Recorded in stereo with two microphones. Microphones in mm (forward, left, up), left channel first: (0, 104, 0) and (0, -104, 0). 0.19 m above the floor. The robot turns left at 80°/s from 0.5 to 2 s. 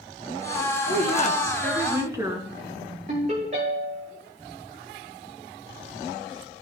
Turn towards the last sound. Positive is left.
turn(degrees=-40)  # may be behind; listen again after turning